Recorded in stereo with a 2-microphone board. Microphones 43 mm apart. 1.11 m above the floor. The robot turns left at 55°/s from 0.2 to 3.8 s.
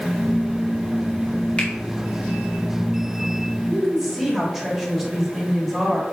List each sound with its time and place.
1.6 s a finger snap: 30° left (ahead or behind), 2 m; by 1.7 s 40° left (ahead or behind), 2 m
3.7 s a woman speaking: 15° right (ahead or behind), 2 m; by 6.0 s 10° right (ahead or behind), 2 m